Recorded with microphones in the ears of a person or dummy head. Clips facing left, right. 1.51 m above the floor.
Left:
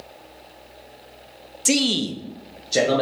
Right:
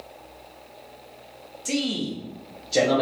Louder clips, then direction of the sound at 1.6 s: Left 4 dB; 85° left.